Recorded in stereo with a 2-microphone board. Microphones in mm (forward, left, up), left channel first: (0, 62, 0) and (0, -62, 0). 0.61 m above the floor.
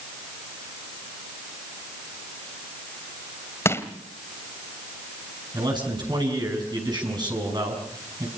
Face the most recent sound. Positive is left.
turn(degrees=-35)  # may be behind; listen again after turning